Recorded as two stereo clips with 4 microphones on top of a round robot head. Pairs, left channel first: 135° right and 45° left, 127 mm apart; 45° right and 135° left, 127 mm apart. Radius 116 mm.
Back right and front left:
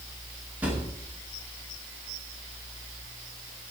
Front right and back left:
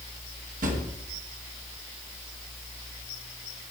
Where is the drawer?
125° left, 2 m.